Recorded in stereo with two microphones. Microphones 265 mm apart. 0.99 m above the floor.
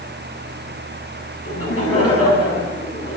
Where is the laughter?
60° left (ahead or behind), 8 m.